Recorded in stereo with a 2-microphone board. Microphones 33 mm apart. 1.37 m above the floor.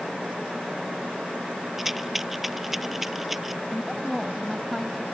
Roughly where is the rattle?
Centre.